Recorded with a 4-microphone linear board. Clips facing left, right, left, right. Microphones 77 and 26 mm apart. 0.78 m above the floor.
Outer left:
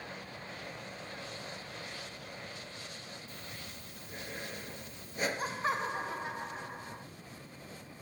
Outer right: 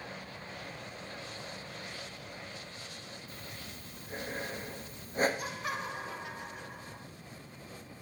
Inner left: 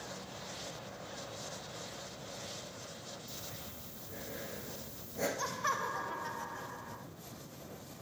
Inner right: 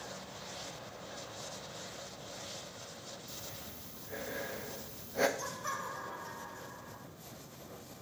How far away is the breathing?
About 0.8 m.